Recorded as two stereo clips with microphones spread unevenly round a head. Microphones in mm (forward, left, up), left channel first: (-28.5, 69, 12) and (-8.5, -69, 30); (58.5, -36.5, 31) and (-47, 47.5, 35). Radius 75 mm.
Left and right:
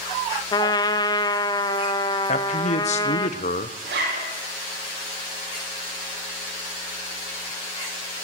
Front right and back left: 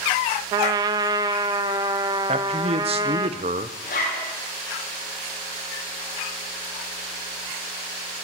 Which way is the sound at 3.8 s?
70° right.